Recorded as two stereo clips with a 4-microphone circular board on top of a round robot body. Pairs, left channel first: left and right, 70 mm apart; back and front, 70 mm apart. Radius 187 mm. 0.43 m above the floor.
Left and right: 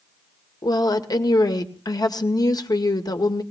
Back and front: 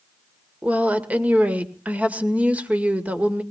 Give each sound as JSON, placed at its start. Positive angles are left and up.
{"t": 0.6, "sound": "a woman speaking", "azimuth_deg": 70, "distance_m": 2.0}